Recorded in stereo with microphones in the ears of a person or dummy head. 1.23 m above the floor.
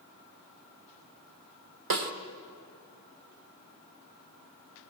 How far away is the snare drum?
About 1.3 m.